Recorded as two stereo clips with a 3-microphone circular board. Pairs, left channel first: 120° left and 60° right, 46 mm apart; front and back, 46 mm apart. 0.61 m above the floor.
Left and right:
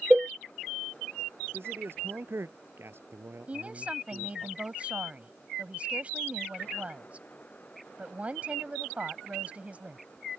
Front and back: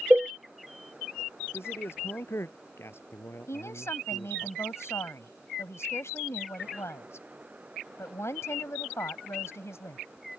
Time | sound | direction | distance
0.1 | a cowbell | 130° right | ?
1.5 | a man speaking | 25° right | ?
3.5 | a woman speaking | straight ahead | ?